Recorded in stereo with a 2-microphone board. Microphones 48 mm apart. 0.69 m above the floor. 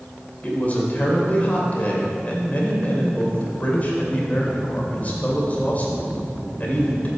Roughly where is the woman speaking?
Left.